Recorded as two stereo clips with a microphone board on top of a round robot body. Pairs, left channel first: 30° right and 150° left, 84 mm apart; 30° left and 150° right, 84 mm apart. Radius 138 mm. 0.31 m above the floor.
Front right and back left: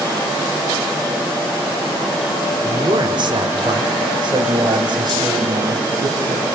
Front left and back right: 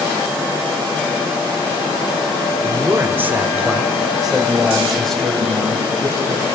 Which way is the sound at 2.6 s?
165° left.